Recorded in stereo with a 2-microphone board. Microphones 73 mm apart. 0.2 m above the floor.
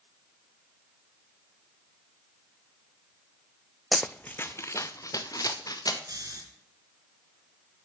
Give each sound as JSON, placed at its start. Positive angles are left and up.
{"t": 3.9, "sound": "running footsteps", "side_deg": 0, "distance_m": 0.5}
{"t": 6.1, "sound": "snoring", "side_deg": -60, "distance_m": 3.5}